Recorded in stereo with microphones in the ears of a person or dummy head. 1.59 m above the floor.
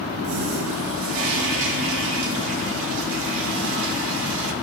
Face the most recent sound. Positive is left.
turn(degrees=-70)  # may be behind; listen again after turning